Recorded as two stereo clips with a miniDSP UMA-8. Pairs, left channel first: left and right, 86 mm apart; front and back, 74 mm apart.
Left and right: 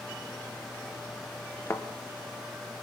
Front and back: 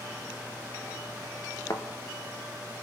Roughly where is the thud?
Ahead left.